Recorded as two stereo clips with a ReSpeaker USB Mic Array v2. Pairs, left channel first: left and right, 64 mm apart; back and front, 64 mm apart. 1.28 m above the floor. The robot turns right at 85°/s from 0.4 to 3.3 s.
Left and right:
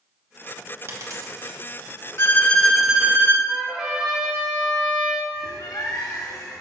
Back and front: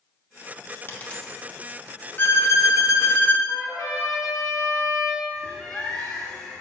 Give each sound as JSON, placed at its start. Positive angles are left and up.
{"t": 0.9, "sound": "a dropped coin", "azimuth_deg": -130, "distance_m": 1.1}
{"t": 2.2, "sound": "a violin", "azimuth_deg": 135, "distance_m": 0.5}
{"t": 3.5, "sound": "a trumpet", "azimuth_deg": -165, "distance_m": 2.0}
{"t": 5.3, "sound": "a bird", "azimuth_deg": 105, "distance_m": 1.4}